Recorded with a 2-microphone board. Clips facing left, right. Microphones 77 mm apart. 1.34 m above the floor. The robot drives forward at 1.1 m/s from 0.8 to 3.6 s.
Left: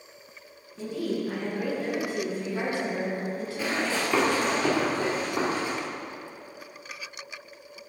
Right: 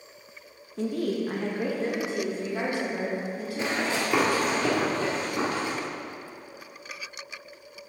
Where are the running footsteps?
25° right (ahead or behind), 1.6 m; by 5.7 s 15° left (ahead or behind), 3 m.